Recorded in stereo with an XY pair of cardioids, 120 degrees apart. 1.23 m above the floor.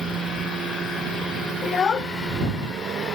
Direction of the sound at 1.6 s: 45° left.